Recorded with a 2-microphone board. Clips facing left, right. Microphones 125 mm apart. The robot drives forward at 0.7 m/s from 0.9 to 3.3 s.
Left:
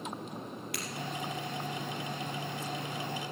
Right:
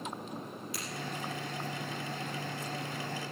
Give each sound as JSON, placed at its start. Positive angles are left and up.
{"t": 0.7, "sound": "breaking glass", "side_deg": 70, "distance_m": 4.0}